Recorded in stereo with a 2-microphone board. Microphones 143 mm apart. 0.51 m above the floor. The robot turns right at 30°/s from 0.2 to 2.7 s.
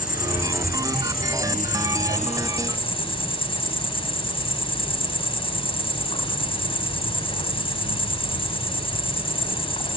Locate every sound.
0.0 s an insect: 70° left, 3.5 m; by 10.0 s 145° left, 3.5 m